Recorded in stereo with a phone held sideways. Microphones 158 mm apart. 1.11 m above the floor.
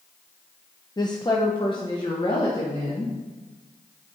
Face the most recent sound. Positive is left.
turn(degrees=35)  # may be behind; listen again after turning